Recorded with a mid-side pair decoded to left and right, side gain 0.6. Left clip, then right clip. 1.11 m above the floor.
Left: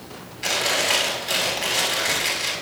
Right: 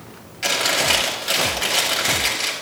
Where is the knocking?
No knocking in this recording.